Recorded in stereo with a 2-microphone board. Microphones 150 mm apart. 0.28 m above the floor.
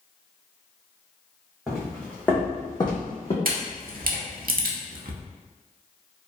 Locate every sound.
1.7 s footsteps: centre (ahead or behind), 1.4 m; by 3.4 s 45° left (ahead or behind), 1.1 m
3.5 s a camera shutter: 75° right (ahead or behind), 0.5 m